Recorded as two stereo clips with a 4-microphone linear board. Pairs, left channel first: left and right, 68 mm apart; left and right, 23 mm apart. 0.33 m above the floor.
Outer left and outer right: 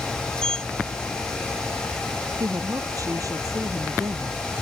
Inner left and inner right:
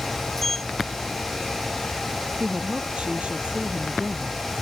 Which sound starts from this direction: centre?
A sliding door, at 0.4 s.